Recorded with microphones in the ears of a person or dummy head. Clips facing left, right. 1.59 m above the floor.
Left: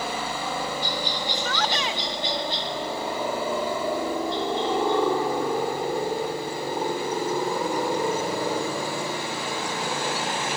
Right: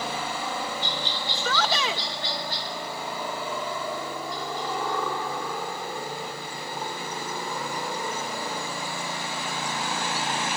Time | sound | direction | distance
0.0 | a helicopter | centre (ahead or behind) | ?
1.3 | a shout | 75° right (ahead or behind) | ?